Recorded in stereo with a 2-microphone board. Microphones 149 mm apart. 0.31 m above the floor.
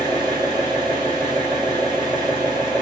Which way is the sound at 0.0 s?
30° right (ahead or behind).